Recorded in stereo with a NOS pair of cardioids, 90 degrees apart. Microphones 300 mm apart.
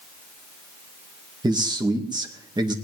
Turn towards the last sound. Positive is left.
turn(degrees=-15)